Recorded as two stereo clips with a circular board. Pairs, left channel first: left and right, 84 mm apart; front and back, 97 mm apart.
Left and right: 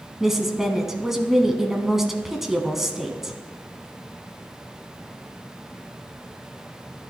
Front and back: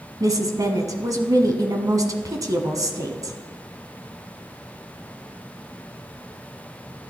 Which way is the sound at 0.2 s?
175° right.